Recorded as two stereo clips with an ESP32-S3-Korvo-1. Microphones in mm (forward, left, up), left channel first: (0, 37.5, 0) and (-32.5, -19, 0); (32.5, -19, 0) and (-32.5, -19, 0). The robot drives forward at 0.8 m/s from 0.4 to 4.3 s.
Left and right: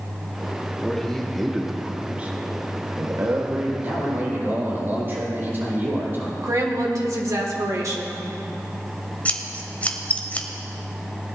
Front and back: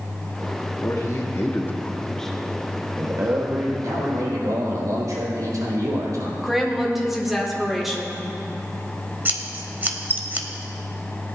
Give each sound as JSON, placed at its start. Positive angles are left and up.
{"t": 0.8, "sound": "a man speaking", "azimuth_deg": -20, "distance_m": 1.5}
{"t": 3.8, "sound": "a man speaking", "azimuth_deg": -170, "distance_m": 3.5}
{"t": 6.4, "sound": "a woman speaking", "azimuth_deg": -95, "distance_m": 1.8}
{"t": 9.2, "sound": "scissors", "azimuth_deg": 125, "distance_m": 0.9}